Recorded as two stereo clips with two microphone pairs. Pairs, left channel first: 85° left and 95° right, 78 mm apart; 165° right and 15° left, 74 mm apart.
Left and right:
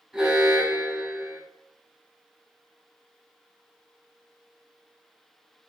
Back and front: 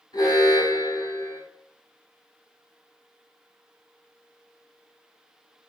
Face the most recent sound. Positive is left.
turn(degrees=180)